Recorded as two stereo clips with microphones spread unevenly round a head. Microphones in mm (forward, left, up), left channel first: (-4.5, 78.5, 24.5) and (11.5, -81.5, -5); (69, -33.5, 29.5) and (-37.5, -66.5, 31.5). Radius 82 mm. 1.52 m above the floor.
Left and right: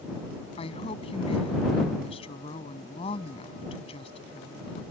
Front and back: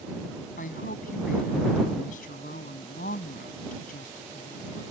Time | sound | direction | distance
0.6 | a woman speaking | 40° left | ?